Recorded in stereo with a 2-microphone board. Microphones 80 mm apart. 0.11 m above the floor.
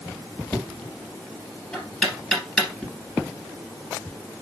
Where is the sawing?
I don't hear sawing.